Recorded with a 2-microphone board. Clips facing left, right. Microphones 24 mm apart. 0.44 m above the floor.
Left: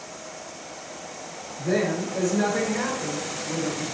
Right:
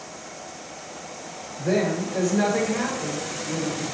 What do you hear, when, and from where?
1.6 s a woman speaking: 40° right (ahead or behind), 1.4 m; by 3.8 s 5° left (ahead or behind), 1.4 m